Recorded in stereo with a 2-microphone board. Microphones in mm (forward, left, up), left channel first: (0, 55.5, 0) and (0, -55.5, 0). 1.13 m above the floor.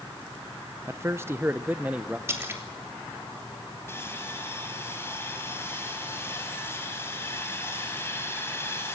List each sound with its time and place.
0.9 s a man speaking: 25° right (ahead or behind), 0.6 m; by 2.2 s 10° right (ahead or behind), 0.8 m
2.3 s a splash: 25° right (ahead or behind), 3 m
3.9 s sawing: 25° left (ahead or behind), 6 m